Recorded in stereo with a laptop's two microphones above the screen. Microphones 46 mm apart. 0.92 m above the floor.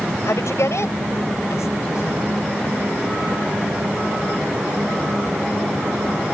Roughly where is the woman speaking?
Left.